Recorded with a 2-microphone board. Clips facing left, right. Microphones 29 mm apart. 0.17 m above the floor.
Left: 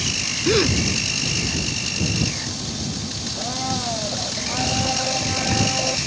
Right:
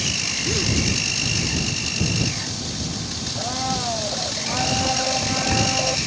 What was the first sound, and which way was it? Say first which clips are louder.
A gasp: left 8 dB; 45° left (ahead or behind).